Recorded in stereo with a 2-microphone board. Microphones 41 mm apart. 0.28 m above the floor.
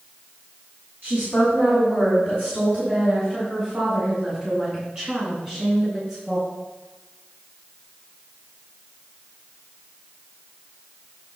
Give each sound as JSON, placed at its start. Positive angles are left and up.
{"t": 1.0, "sound": "a woman speaking", "side_deg": -45, "distance_m": 2.5}